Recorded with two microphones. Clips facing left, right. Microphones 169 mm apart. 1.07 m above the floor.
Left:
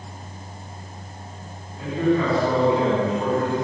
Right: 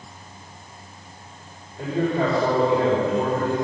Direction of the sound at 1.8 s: 80° right.